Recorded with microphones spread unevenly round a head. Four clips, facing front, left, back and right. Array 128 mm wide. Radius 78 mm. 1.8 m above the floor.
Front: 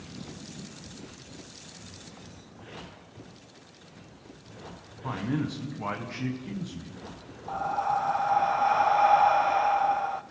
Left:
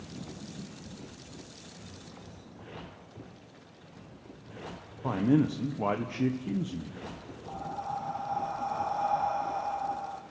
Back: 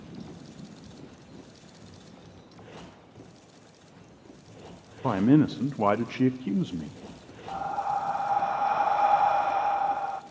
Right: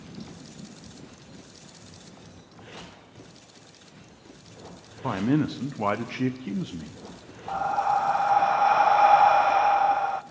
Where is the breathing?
65° right, 0.6 m.